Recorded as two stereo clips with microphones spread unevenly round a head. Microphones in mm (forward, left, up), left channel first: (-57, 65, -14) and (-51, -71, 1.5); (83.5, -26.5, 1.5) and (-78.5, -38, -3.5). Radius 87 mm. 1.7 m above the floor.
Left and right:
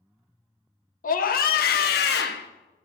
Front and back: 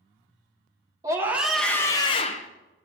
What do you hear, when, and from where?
1.0 s a scream: 110° left, 1.9 m; by 2.5 s 55° left, 1.8 m